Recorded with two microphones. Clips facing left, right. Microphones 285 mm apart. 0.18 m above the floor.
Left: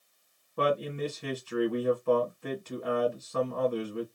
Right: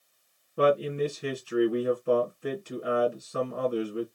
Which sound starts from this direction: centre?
A man speaking, at 0.6 s.